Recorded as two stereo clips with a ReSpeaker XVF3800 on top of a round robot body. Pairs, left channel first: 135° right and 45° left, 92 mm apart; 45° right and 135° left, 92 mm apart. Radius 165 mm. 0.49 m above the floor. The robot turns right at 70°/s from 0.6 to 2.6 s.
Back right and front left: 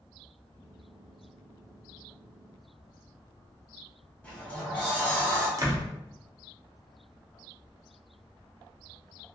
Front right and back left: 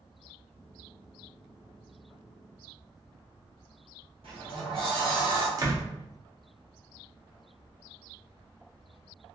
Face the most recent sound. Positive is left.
turn(degrees=95)